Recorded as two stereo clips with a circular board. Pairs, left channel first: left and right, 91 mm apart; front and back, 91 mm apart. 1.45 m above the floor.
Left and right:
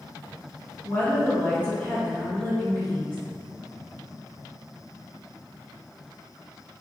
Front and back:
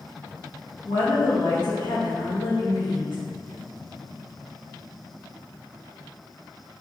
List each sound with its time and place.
0.8 s a woman speaking: 20° left, 1.7 m